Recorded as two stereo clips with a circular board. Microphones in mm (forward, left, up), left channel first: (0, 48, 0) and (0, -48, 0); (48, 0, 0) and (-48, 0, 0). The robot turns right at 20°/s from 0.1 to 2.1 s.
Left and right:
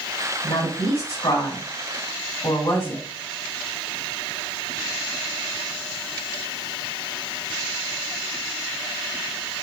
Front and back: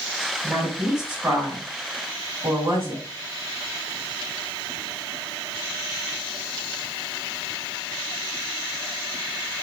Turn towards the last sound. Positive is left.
turn(degrees=135)